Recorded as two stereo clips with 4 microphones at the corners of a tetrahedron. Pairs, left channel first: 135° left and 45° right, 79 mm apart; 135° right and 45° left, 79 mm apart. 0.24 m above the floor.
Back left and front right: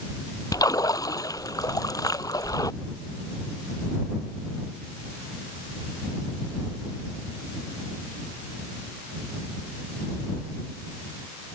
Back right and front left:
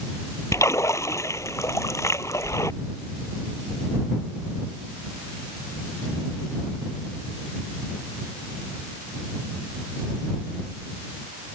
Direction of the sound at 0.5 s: 175° left.